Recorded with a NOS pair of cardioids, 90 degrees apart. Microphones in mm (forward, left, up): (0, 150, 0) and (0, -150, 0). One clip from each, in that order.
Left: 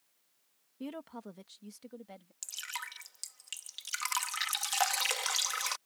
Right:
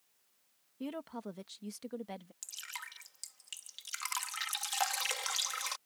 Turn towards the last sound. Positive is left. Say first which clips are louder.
# left 6 dB
turn(degrees=25)